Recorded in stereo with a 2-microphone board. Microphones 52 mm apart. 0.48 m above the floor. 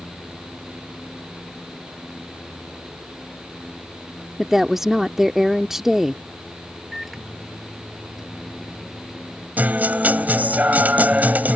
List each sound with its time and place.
4.4 s a woman speaking: 10° right (ahead or behind)
6.9 s a microwave: 5° right (ahead or behind)
9.6 s a guitar: 35° right (ahead or behind)